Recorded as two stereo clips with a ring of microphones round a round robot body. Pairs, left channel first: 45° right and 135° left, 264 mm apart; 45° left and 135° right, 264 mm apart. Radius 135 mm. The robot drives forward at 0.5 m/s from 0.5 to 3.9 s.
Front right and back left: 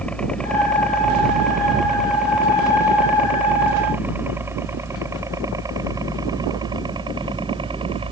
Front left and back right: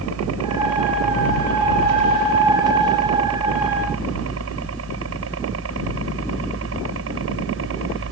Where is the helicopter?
130° right; by 8.1 s 160° right.